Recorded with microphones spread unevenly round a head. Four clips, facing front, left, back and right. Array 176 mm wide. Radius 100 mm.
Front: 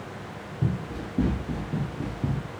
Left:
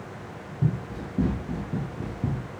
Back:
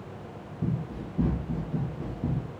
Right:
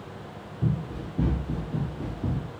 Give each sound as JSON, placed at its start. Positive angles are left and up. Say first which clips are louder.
{"t": 0.6, "sound": "running footsteps", "louder": "left 1 dB, front 2 dB", "azimuth_deg": 15, "distance_m": 2.0}